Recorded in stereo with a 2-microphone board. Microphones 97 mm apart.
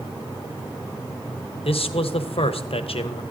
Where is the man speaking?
75° left (ahead or behind), 0.6 m.